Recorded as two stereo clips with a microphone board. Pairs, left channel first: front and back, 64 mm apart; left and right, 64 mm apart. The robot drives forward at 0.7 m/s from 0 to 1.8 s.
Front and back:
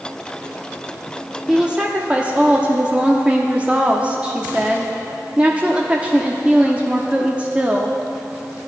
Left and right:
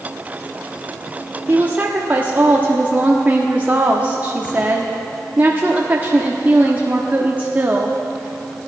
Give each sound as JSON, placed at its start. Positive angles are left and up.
{"t": 1.5, "sound": "a woman speaking", "azimuth_deg": -105, "distance_m": 0.9}